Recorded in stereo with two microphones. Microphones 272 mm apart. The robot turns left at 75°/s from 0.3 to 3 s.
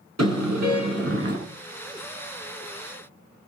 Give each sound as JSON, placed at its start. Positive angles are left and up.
{"t": 0.2, "sound": "a car horn", "azimuth_deg": -65, "distance_m": 7.5}